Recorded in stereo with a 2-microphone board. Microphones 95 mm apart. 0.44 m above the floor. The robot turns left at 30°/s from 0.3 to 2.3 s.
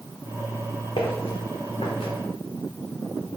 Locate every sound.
1.0 s footsteps: 75° left (ahead or behind), 1.4 m